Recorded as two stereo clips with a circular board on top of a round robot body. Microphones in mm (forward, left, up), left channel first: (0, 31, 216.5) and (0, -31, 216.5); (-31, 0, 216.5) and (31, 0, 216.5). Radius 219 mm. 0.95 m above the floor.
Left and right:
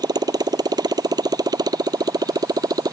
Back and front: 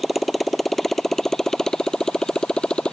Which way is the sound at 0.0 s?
90° right.